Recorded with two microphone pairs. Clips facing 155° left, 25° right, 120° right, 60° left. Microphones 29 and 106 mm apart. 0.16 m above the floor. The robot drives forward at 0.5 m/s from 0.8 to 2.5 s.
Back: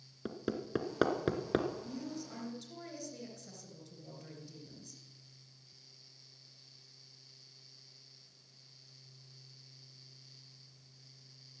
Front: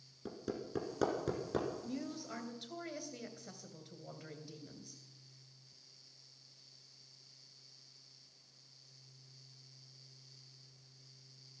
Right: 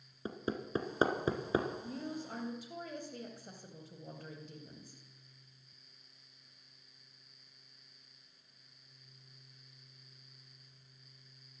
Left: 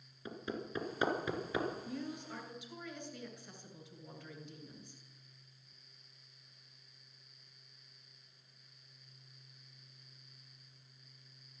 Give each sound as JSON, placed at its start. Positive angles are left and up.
{"t": 0.2, "sound": "hammering", "azimuth_deg": -160, "distance_m": 1.9}
{"t": 1.8, "sound": "a woman speaking", "azimuth_deg": -75, "distance_m": 3.0}